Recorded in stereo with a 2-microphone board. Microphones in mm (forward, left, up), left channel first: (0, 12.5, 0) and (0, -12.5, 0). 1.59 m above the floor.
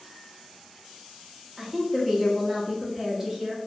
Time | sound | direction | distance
1.6 | a woman speaking | 10° right (ahead or behind) | 0.6 m